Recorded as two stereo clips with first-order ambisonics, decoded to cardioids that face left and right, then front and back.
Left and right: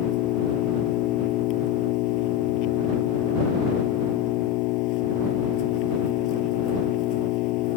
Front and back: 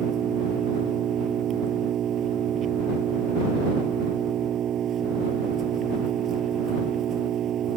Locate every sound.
0.0 s an engine running: 120° left